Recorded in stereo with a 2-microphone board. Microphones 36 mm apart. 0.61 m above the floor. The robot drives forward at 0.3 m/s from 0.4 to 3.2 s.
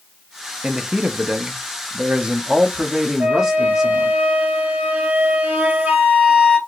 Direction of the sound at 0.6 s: 25° right (ahead or behind).